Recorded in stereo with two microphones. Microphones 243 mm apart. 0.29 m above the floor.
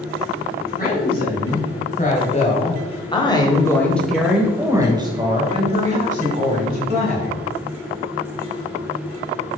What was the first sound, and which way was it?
A woman speaking, 40° left (ahead or behind).